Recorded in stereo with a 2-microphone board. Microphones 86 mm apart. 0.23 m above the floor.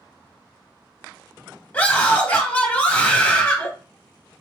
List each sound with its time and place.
1.7 s a scream: 15° left (ahead or behind), 1.2 m